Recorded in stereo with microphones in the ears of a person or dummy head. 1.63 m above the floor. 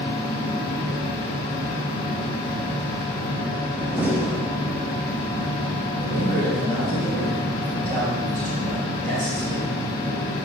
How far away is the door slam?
About 0.7 m.